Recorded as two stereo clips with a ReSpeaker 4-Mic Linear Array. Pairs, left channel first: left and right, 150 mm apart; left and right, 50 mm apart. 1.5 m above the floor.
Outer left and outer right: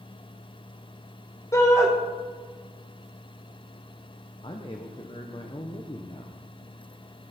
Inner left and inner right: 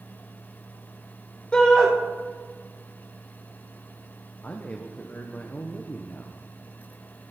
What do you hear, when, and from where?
1.5 s a shout: 20° left (ahead or behind), 1.3 m
4.4 s a man speaking: 35° left (ahead or behind), 1.0 m